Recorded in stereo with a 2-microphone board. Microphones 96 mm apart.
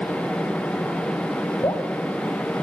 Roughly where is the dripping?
Left.